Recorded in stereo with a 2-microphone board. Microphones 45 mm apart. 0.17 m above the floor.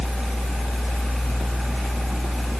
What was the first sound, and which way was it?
Only background noise.